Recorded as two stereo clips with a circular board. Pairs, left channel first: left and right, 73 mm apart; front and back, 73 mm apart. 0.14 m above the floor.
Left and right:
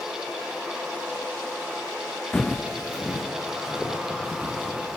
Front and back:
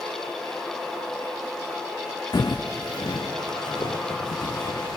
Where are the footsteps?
10° left, 0.5 m; by 5.0 s 15° right, 2.0 m.